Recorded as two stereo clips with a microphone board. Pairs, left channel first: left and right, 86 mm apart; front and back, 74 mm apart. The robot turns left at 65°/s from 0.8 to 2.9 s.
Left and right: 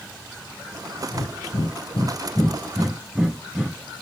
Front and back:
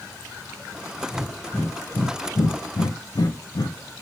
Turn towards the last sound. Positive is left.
turn(degrees=-10)